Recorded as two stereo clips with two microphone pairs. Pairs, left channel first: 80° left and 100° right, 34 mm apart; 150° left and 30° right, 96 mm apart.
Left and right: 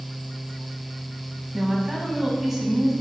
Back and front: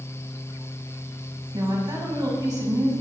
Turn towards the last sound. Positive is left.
turn(degrees=-25)